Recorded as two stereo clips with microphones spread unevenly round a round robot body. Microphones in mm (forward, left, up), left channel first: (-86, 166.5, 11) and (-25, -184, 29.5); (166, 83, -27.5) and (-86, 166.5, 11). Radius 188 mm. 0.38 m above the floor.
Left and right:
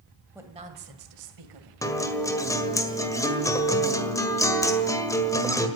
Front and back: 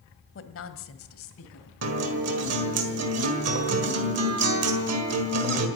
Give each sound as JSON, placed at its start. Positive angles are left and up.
{"t": 0.3, "sound": "a woman speaking", "azimuth_deg": 5, "distance_m": 1.9}
{"t": 1.8, "sound": "a guitar", "azimuth_deg": 175, "distance_m": 1.8}